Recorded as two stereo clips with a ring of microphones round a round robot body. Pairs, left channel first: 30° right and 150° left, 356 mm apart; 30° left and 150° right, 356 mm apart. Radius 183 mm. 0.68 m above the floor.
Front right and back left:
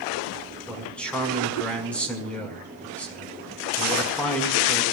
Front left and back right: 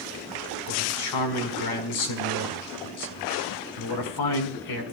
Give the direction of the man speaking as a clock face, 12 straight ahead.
10 o'clock.